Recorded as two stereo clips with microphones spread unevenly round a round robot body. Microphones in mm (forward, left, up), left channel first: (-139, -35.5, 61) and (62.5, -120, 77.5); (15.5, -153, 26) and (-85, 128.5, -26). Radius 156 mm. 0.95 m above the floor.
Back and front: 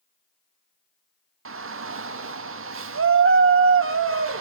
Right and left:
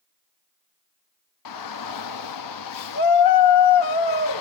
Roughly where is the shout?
Ahead right.